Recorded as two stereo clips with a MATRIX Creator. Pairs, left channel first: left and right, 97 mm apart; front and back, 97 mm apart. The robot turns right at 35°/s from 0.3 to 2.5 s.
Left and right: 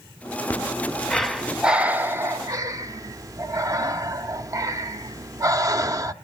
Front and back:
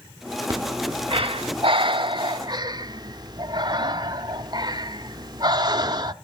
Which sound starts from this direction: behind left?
Breathing, at 0.5 s.